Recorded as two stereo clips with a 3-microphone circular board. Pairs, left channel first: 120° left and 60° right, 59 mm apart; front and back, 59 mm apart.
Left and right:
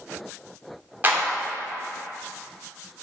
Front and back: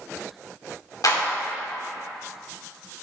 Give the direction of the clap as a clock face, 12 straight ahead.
12 o'clock.